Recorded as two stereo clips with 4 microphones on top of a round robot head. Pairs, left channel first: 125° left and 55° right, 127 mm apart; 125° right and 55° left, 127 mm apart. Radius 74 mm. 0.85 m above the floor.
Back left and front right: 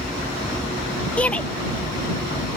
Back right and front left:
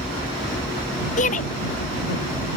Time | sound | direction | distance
1.2 | a shout | 155° right | ?